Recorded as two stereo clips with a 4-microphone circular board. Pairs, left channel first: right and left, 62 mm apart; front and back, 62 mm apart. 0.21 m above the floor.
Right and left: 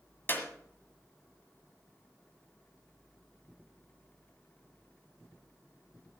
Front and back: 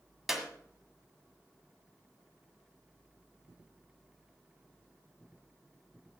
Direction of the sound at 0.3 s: 100° right.